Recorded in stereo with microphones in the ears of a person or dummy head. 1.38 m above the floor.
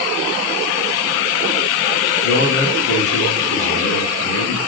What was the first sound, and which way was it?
A man speaking, 65° left (ahead or behind).